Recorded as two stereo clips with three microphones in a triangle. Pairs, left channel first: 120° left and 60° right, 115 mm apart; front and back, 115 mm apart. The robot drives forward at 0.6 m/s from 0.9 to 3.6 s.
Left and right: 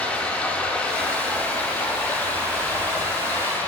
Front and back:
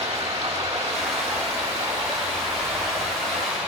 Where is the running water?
165° right, 1.9 m; by 3.7 s 170° right, 3.5 m.